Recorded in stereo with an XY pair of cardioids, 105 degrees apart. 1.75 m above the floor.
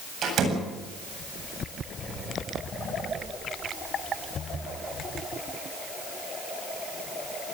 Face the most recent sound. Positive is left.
turn(degrees=-60)